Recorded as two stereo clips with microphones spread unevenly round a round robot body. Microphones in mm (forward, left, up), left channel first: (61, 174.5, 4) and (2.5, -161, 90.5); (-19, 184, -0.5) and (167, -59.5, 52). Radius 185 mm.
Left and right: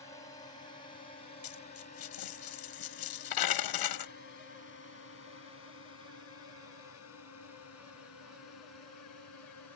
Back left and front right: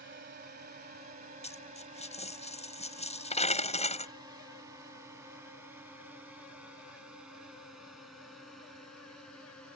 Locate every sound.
0.0 s a drone: 5° left; by 9.8 s 40° left
1.4 s a dropped coin: 55° left